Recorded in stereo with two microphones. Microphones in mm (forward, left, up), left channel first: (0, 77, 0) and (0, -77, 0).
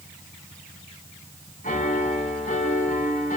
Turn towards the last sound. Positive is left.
turn(degrees=60)  # may be behind; listen again after turning